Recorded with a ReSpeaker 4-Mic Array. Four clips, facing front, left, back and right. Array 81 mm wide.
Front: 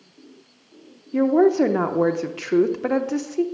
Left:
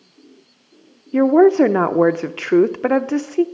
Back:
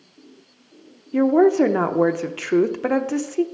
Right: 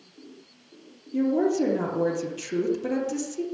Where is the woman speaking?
95° left, 0.7 m.